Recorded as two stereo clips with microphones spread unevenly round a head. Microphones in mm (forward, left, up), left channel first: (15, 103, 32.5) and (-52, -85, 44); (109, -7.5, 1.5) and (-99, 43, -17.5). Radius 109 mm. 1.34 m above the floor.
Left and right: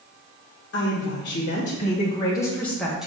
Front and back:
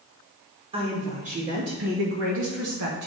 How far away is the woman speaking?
About 1.4 m.